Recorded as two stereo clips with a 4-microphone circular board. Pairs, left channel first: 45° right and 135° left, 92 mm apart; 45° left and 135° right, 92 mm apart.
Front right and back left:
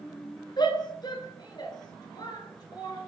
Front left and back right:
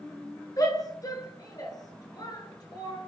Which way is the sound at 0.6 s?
5° right.